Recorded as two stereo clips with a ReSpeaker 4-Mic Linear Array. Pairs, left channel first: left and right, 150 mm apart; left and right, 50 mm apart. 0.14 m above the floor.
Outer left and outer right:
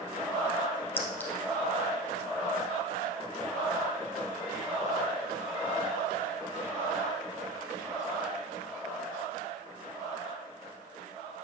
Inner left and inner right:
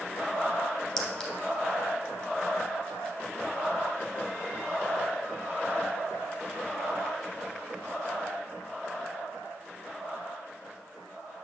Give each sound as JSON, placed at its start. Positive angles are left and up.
{"t": 1.0, "sound": "a clink", "side_deg": 15, "distance_m": 1.3}